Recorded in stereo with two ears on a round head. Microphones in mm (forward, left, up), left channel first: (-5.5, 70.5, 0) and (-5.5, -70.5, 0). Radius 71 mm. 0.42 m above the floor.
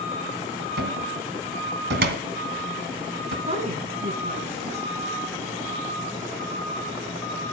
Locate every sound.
0.8 s a cupboard door: 80° right, 2 m
3.5 s a woman speaking: 50° right (ahead or behind), 5 m